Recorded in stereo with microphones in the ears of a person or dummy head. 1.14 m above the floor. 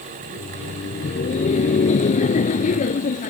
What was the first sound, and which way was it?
Laughter, 35° left (ahead or behind).